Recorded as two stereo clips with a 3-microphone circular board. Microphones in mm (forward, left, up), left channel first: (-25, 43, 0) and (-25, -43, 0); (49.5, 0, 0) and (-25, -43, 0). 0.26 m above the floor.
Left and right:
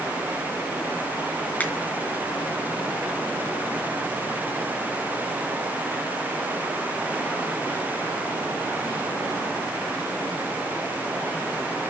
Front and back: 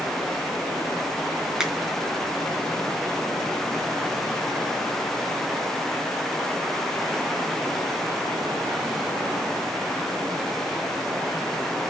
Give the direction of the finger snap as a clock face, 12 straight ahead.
8 o'clock.